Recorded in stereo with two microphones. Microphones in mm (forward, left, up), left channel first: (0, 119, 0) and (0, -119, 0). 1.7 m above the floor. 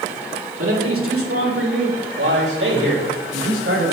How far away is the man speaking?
About 2.5 m.